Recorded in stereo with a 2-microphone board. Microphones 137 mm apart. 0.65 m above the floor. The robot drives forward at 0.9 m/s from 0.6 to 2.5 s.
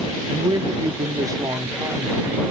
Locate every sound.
0.3 s a man speaking: 30° right (ahead or behind), 0.8 m; by 2.5 s 15° right (ahead or behind), 1.8 m